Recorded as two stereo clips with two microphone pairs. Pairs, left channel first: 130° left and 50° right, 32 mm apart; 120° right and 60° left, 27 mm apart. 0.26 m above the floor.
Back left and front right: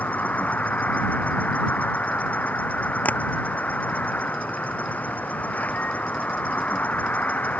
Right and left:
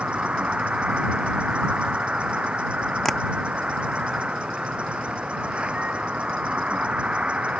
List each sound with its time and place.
0.0 s an insect: 100° left
3.0 s tapping: 155° left